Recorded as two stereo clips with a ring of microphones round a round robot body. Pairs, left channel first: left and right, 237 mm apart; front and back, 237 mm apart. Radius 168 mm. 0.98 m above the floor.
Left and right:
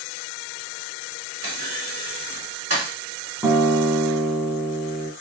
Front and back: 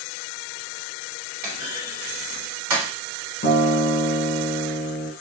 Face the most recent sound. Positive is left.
turn(degrees=-5)